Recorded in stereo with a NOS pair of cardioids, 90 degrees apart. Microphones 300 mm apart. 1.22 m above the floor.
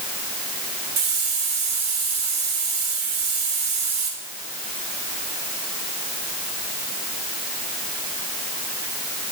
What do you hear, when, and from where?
1.0 s a hiss: 60° right, 5 m